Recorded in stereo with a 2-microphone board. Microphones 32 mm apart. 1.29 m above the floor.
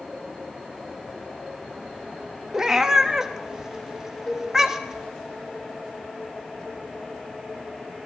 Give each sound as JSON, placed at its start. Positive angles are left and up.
{"t": 2.5, "sound": "a cat meowing", "side_deg": -15, "distance_m": 0.8}
{"t": 4.3, "sound": "a cowbell", "side_deg": 15, "distance_m": 2.5}